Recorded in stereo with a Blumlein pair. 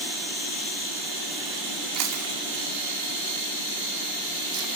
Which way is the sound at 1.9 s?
40° right.